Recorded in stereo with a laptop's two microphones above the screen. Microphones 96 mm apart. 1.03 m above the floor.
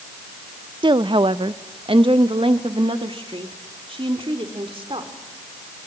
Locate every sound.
0.8 s a woman speaking: 55° right (ahead or behind), 0.5 m; by 5.1 s 70° right (ahead or behind), 3 m